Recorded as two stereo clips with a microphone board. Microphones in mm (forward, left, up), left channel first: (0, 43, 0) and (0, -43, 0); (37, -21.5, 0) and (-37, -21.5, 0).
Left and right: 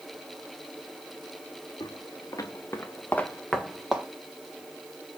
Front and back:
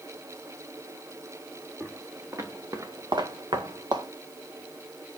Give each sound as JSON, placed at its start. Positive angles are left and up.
{"t": 1.8, "sound": "footsteps", "azimuth_deg": 120, "distance_m": 2.5}